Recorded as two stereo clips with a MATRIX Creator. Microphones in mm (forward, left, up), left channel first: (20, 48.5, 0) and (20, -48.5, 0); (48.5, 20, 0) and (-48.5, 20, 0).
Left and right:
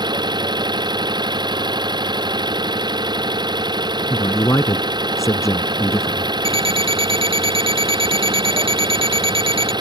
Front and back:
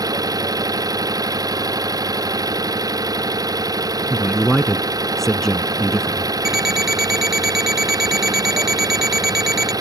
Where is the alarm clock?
95° right.